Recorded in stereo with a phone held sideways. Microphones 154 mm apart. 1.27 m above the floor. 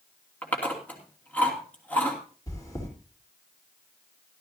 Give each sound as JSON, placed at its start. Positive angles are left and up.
{"t": 0.4, "sound": "chewing", "side_deg": 10, "distance_m": 2.5}
{"t": 2.5, "sound": "chewing", "side_deg": 25, "distance_m": 3.5}